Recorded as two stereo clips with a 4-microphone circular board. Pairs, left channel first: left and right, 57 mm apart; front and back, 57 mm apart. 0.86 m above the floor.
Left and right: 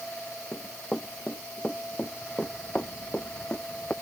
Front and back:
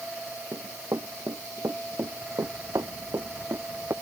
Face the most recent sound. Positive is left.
turn(degrees=150)